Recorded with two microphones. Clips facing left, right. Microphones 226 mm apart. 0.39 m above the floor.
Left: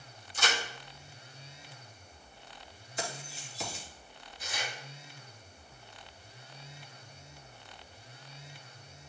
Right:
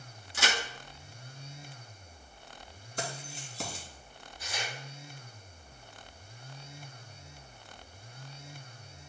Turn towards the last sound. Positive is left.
turn(degrees=-40)  # may be behind; listen again after turning